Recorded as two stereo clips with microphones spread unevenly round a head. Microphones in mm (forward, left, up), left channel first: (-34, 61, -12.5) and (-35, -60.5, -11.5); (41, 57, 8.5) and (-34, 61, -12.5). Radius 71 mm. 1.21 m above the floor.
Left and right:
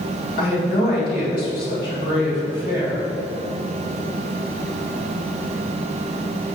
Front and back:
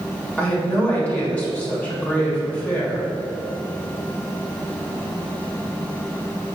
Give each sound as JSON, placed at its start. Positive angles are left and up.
{"t": 0.4, "sound": "a woman speaking", "azimuth_deg": 65, "distance_m": 1.9}